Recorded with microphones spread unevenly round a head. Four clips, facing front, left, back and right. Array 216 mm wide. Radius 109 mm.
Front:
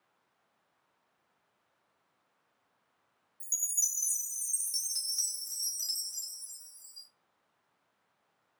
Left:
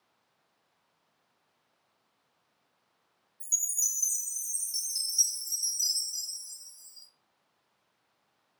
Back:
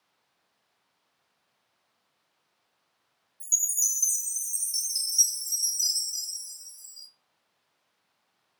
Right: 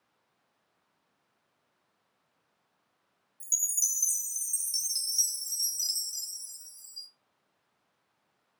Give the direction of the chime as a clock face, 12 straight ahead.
3 o'clock.